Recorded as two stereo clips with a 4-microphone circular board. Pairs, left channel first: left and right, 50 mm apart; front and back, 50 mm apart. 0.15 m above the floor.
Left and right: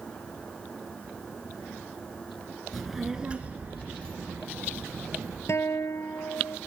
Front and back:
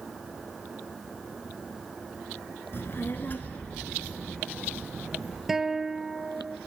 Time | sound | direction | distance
2.7 | a child speaking | 5° left | 1.3 m
5.5 | a guitar | 95° left | 0.7 m